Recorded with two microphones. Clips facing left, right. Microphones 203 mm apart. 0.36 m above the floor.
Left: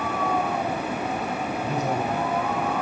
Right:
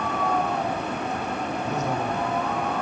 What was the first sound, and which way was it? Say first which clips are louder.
A man speaking: left 1 dB; 35° left (ahead or behind).